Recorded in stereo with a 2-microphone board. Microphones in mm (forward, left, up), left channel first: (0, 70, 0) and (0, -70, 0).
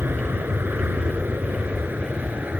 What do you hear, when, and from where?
0.0 s an aircraft: 15° right (ahead or behind); by 2.6 s 10° right (ahead or behind)